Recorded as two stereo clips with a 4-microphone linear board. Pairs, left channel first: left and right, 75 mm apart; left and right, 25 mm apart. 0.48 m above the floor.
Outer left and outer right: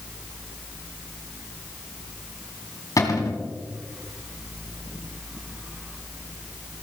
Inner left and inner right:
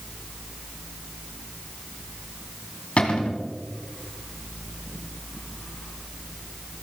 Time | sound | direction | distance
3.0 | a cupboard door | 50° left (ahead or behind) | 2.5 m